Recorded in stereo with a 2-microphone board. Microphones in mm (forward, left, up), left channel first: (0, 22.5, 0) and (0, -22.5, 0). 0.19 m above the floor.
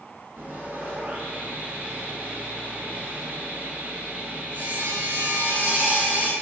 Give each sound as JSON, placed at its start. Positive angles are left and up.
{"t": 0.4, "sound": "sawing", "side_deg": -35, "distance_m": 1.3}